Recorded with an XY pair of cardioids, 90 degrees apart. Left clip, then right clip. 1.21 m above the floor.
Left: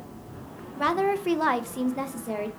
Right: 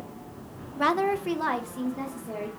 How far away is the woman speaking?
About 0.6 m.